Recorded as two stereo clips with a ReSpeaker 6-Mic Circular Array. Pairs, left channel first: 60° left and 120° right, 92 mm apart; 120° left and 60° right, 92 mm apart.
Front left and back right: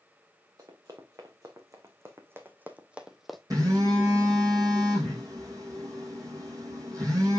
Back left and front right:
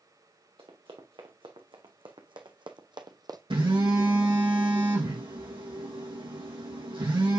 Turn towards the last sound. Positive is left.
turn(degrees=-70)